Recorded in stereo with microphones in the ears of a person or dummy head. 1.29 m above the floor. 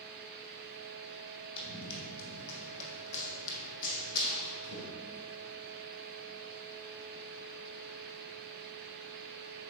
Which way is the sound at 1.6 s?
35° left (ahead or behind).